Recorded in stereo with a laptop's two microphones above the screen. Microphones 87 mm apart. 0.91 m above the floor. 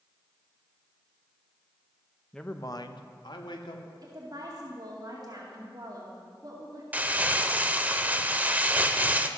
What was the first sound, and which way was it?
A man speaking, 5° left (ahead or behind).